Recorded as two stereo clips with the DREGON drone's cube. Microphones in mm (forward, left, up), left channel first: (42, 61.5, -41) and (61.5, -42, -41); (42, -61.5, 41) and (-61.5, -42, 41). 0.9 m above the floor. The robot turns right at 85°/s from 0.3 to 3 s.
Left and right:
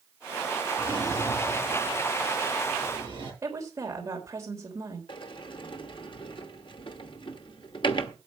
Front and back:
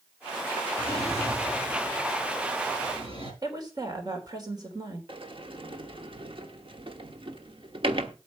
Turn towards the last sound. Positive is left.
turn(degrees=135)